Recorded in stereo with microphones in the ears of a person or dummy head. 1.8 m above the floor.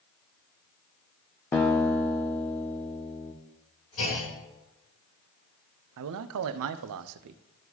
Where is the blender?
No blender in this recording.